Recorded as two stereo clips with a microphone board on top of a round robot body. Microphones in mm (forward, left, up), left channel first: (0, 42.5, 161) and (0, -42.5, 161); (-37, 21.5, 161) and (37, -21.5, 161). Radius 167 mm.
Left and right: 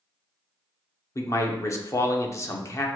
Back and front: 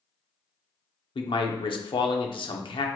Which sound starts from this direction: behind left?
A man speaking, at 1.1 s.